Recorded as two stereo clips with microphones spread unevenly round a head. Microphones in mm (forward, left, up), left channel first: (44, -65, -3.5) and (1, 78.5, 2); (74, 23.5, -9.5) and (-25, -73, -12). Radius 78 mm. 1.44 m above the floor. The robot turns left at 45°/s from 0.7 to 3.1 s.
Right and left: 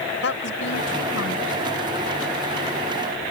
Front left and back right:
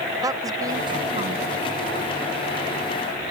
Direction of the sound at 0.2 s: 70° right.